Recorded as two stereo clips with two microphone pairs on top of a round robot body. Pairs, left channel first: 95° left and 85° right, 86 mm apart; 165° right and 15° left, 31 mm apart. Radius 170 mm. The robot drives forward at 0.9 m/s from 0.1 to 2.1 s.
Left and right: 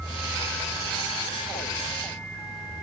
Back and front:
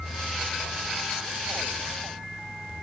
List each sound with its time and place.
Only background noise.